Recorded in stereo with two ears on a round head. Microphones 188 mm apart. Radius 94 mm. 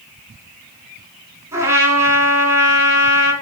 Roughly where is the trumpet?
Centre.